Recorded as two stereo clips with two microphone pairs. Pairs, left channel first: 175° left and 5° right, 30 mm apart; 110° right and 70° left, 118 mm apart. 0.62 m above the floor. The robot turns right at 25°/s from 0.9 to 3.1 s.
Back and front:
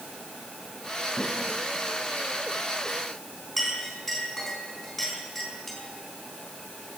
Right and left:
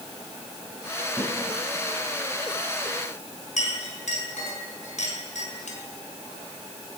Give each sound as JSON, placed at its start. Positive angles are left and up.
{"t": 1.2, "sound": "a snare drum", "azimuth_deg": -25, "distance_m": 6.0}
{"t": 3.6, "sound": "a clink", "azimuth_deg": -95, "distance_m": 4.0}